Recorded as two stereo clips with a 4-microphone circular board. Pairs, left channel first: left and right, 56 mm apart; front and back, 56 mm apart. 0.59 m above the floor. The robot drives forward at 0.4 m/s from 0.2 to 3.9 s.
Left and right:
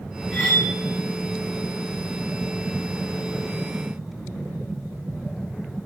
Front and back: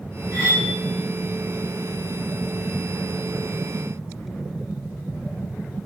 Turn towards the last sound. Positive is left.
turn(degrees=-35)